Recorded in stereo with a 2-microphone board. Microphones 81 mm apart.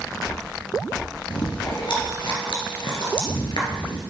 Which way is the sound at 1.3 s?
90° left.